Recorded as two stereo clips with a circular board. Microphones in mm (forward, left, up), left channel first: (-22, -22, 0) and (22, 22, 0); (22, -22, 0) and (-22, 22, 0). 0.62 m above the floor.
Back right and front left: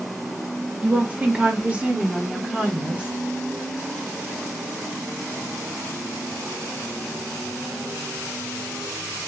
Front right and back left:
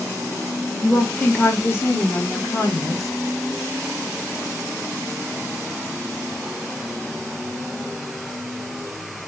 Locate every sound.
0.8 s a woman speaking: 10° left, 0.7 m; by 3.1 s 25° right, 1.8 m